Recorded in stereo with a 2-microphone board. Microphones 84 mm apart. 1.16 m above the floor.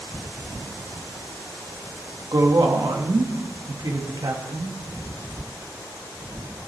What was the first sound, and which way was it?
A woman speaking, 55° right (ahead or behind).